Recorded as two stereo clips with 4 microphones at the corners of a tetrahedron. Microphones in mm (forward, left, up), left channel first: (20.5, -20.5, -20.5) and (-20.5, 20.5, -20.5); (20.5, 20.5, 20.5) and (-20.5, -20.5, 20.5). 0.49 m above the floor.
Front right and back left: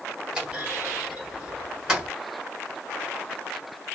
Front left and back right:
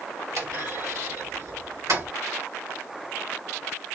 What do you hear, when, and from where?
0.3 s a clunk: 150° right, 1.8 m